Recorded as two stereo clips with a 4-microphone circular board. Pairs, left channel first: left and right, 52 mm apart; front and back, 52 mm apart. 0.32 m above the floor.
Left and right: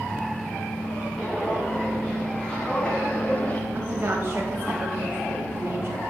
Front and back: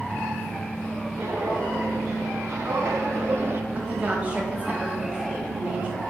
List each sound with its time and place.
1.2 s footsteps: 165° left, 3.5 m; by 3.6 s 140° left, 0.6 m
3.7 s a woman speaking: 130° right, 1.5 m